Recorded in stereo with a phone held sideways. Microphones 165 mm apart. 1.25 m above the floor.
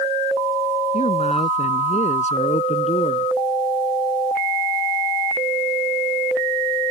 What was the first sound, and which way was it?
A man speaking, 45° left (ahead or behind).